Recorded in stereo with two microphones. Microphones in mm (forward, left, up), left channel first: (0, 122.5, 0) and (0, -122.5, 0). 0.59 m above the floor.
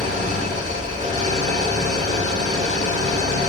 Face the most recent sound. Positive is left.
turn(degrees=-30)  # may be behind; listen again after turning